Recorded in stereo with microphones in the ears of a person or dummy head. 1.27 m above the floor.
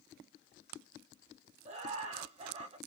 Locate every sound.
1.6 s laughter: 35° right (ahead or behind), 0.9 m